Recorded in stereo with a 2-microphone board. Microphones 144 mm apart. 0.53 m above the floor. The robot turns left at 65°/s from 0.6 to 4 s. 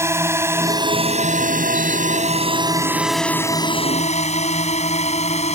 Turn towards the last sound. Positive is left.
turn(degrees=50)  # may be behind; listen again after turning